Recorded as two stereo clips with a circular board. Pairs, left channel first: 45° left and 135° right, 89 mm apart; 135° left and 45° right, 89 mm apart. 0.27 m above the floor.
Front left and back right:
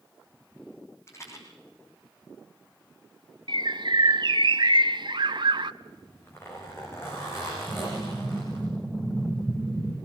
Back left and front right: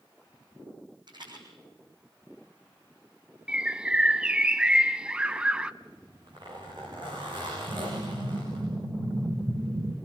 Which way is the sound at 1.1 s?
15° right.